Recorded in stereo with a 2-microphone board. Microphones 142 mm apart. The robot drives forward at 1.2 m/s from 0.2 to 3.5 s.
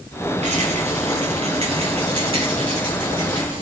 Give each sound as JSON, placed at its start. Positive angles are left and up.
{"t": 0.4, "sound": "a rattle", "side_deg": -50, "distance_m": 7.5}